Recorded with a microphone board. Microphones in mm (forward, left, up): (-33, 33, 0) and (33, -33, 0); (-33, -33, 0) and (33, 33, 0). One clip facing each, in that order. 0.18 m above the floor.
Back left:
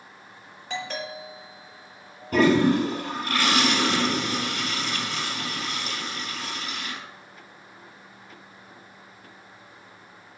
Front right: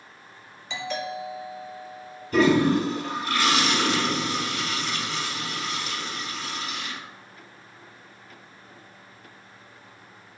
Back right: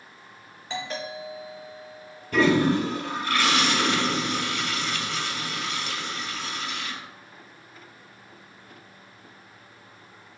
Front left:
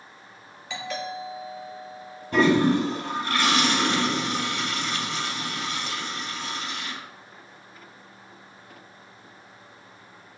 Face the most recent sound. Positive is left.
turn(degrees=110)